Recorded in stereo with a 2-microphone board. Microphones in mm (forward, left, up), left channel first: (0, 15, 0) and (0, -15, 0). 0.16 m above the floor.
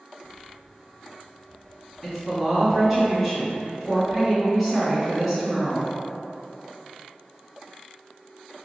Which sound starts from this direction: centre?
A woman speaking, at 2.0 s.